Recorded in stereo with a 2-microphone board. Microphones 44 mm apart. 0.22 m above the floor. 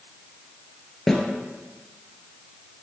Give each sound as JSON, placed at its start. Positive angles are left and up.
{"t": 1.1, "sound": "a snare drum", "side_deg": 10, "distance_m": 0.7}